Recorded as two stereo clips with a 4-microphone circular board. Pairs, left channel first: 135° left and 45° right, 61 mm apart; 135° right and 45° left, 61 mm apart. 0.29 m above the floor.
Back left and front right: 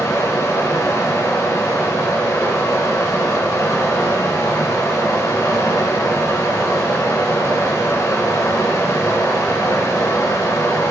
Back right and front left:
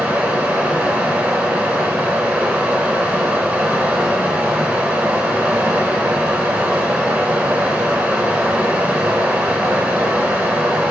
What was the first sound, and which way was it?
Running water, 110° left.